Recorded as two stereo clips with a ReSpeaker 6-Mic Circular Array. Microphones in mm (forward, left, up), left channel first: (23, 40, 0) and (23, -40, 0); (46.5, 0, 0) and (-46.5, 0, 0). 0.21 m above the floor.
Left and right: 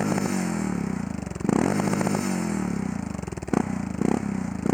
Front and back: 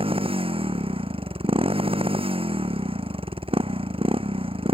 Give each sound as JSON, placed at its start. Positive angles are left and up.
{"t": 0.0, "sound": "a motorcycle", "azimuth_deg": 175}